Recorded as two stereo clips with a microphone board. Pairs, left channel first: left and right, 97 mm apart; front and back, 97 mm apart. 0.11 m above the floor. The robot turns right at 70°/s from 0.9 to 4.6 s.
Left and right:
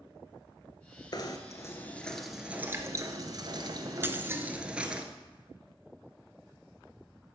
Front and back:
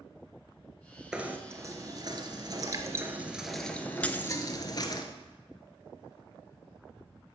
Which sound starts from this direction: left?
Knocking, at 1.1 s.